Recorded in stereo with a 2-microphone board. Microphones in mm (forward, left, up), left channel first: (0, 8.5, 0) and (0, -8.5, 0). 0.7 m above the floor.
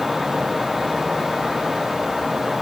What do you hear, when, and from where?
Only background noise.